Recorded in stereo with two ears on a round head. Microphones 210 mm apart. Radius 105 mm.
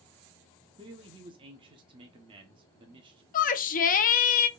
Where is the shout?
35° left (ahead or behind), 0.5 m.